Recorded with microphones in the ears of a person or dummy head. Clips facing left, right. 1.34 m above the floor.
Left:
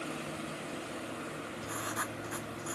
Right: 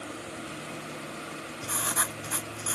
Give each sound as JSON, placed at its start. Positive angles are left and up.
{"t": 1.6, "sound": "writing", "side_deg": -60}